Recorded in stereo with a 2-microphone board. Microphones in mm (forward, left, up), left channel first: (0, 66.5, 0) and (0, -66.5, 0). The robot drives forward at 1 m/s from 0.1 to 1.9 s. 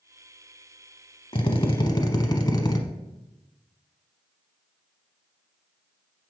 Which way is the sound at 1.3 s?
40° left (ahead or behind).